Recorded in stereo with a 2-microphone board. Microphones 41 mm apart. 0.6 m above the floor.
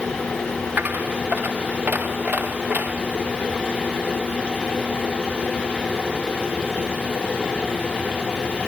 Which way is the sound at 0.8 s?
50° right (ahead or behind).